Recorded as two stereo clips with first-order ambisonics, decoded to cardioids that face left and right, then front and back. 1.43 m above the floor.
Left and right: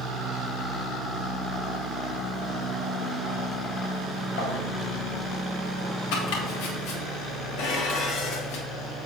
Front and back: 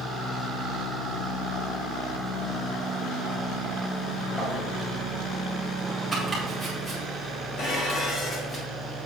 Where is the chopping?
90° left, 2.5 m.